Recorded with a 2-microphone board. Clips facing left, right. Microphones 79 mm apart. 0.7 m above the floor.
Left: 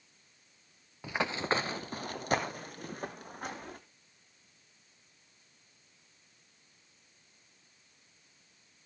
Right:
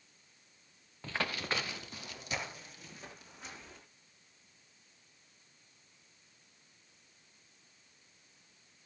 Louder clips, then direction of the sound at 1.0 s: Left 5 dB; 10° left (ahead or behind).